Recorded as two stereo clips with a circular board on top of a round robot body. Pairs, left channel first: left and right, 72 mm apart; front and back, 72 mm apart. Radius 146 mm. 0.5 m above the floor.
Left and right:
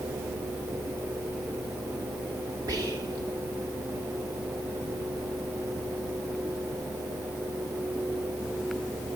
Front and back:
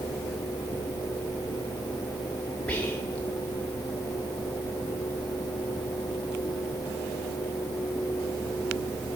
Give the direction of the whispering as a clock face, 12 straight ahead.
2 o'clock.